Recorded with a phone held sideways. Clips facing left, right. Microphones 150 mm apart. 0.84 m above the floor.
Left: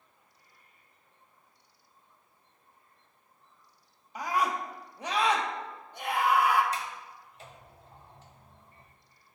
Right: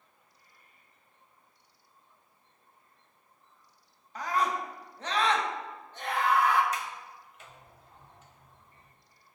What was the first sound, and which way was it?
A scream, 10° left (ahead or behind).